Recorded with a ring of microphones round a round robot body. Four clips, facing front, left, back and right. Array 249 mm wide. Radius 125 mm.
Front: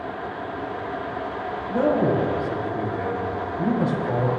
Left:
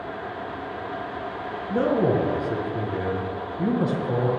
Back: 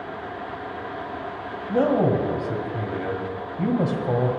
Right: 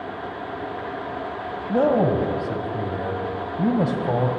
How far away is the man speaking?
About 1.7 m.